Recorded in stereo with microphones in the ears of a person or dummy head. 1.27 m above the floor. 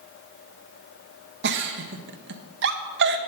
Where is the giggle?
50° right (ahead or behind), 0.8 m.